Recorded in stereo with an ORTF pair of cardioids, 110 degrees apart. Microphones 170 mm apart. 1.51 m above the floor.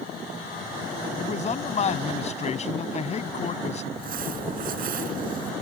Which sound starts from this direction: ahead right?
Crumpling, at 3.9 s.